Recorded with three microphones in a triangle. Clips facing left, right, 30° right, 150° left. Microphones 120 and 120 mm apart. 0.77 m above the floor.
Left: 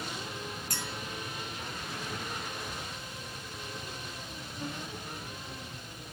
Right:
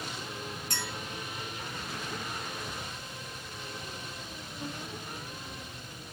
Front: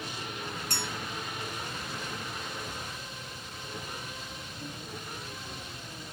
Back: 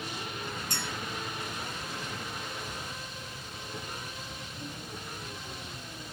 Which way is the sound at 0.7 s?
25° right.